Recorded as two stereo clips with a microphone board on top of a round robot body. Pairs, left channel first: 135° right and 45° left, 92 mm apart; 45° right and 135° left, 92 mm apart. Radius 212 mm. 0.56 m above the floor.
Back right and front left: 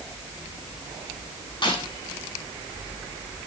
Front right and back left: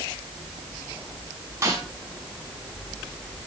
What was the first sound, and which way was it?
A snare drum, 170° right.